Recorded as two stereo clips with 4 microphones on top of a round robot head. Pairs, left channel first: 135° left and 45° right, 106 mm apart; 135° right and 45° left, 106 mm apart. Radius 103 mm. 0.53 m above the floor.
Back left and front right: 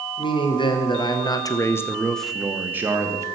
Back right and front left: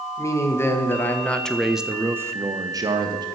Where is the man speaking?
165° left, 1.8 m; by 3.2 s 10° left, 1.4 m.